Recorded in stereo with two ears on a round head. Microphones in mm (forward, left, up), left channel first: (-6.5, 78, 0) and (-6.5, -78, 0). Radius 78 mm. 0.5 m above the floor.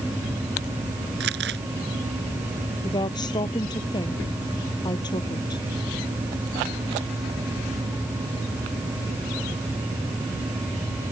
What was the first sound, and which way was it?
Crumpling, 65° right (ahead or behind).